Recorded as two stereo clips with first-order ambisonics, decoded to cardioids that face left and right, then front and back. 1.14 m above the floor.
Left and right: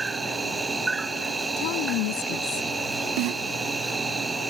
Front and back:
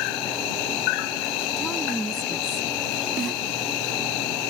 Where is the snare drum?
115° right.